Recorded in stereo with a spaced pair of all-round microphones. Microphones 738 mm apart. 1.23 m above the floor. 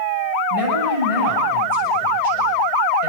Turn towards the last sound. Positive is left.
turn(degrees=-45)  # may be behind; listen again after turning